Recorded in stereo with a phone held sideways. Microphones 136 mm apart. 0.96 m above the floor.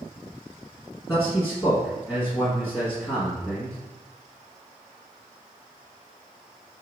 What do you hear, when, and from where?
1.1 s a man speaking: 5° left (ahead or behind), 1.3 m